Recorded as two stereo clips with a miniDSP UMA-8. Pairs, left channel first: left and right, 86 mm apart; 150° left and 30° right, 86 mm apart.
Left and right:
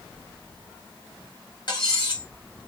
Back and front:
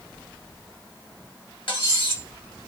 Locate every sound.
1.7 s cutlery clinking: 130° left, 1.2 m